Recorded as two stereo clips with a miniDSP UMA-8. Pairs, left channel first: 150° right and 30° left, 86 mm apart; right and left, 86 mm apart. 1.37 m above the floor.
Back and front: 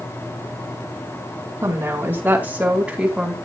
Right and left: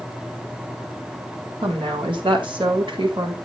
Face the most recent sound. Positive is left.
turn(degrees=115)